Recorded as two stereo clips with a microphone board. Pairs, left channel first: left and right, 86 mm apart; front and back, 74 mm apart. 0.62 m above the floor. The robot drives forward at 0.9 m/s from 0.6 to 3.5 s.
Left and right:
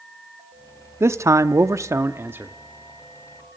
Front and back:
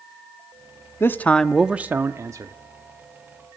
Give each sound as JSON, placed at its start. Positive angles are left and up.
{"t": 1.0, "sound": "a man speaking", "azimuth_deg": -45, "distance_m": 0.9}